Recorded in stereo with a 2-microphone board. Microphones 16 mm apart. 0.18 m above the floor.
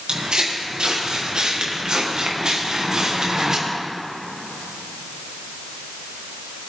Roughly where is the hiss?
I don't hear a hiss.